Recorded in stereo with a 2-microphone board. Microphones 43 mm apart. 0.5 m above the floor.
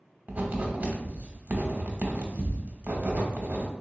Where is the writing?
40° right (ahead or behind), 0.7 m.